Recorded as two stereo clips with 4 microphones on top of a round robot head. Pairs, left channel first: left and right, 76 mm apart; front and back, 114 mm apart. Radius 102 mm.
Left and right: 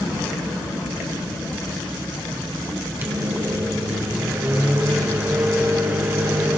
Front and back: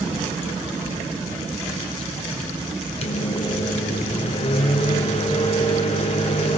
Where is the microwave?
25° right, 1.1 m.